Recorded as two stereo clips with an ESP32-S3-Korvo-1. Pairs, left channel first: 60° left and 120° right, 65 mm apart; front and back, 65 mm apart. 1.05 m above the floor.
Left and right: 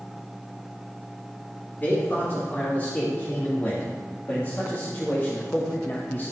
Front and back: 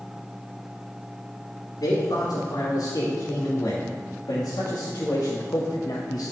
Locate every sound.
1.8 s a man speaking: 5° right, 3 m; by 6.3 s straight ahead, 0.8 m